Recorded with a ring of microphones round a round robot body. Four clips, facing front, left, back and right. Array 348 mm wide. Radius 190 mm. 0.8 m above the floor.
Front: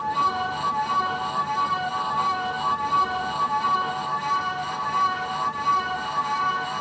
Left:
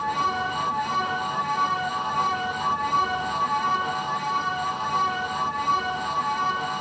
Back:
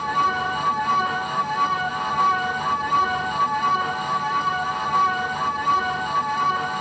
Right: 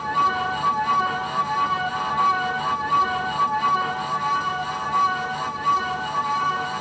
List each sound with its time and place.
Only background noise.